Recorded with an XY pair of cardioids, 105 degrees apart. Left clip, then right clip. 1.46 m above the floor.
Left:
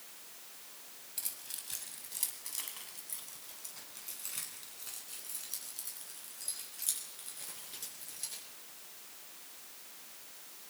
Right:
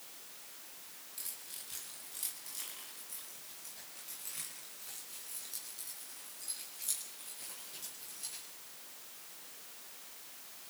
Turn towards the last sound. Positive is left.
turn(degrees=45)